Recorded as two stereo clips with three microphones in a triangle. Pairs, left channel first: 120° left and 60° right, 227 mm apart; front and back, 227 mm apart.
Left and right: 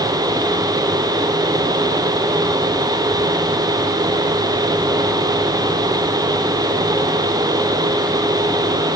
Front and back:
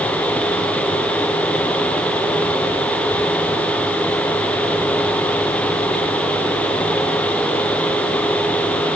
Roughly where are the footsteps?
No footsteps in this recording.